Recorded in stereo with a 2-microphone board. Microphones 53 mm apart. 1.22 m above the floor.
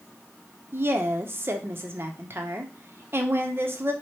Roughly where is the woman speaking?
Right.